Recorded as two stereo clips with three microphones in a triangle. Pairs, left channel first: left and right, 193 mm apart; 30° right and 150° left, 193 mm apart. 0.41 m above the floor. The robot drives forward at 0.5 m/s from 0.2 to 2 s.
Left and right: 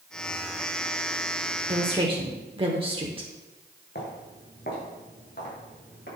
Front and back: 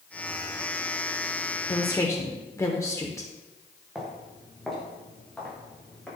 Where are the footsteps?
60° left, 4 m; by 6.1 s 55° left, 7 m.